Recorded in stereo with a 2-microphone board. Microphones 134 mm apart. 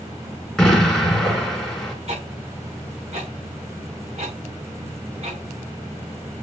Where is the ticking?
50° right (ahead or behind), 5.5 m.